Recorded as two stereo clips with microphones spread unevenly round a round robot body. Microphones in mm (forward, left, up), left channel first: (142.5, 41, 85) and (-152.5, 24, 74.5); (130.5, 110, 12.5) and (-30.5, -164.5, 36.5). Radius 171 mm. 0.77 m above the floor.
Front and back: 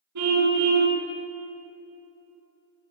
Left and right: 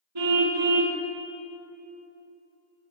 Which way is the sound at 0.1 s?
140° right.